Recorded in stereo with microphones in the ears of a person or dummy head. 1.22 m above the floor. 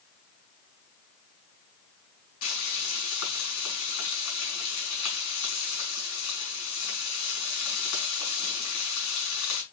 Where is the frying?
65° left (ahead or behind), 5.5 m.